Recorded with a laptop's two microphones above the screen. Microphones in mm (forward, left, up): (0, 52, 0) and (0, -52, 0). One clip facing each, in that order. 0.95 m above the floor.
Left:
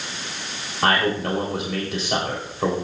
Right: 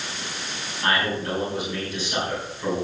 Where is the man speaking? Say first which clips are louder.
Left 4 dB; 80° left, 3.5 m.